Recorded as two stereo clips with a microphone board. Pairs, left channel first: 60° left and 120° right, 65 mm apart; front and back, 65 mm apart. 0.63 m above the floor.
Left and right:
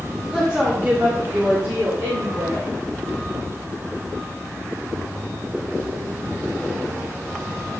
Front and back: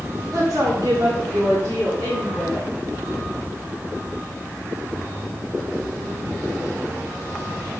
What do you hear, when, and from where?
0.3 s a woman speaking: 165° left, 2 m; by 2.7 s 110° right, 3 m